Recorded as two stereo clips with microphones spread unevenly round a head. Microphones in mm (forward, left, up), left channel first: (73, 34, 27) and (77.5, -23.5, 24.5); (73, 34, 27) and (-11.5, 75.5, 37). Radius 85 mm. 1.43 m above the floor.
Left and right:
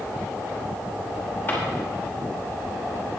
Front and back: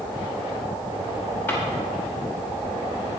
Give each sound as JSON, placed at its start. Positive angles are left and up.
{"t": 1.5, "sound": "a drawer", "azimuth_deg": 45, "distance_m": 5.5}